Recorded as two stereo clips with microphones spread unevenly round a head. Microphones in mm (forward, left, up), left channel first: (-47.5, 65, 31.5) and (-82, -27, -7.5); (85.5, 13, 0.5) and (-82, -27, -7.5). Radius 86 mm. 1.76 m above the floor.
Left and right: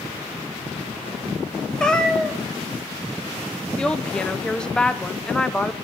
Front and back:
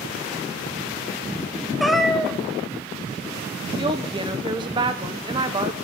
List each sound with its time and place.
1.8 s a cat meowing: 100° left, 1.1 m
3.8 s a woman speaking: 130° left, 0.8 m